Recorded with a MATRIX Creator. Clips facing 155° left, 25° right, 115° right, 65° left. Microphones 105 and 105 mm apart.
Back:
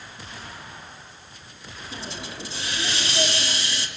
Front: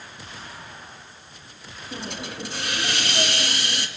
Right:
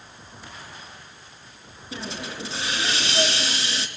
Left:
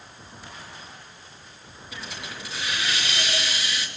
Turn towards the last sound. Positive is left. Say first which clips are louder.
# front 3 dB, right 5 dB
turn(degrees=-50)